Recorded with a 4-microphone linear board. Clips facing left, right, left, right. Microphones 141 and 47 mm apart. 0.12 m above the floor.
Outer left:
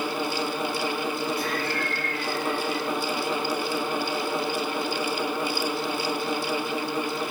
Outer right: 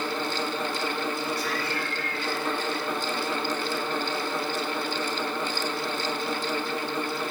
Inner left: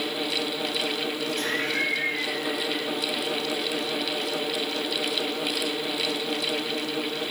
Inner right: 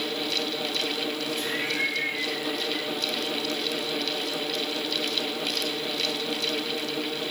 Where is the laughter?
55° left (ahead or behind), 6 m.